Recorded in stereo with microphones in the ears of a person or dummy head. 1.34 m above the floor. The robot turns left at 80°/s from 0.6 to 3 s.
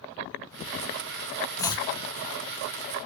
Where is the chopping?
10° left (ahead or behind), 0.5 m; by 1.9 s 30° left (ahead or behind), 0.5 m.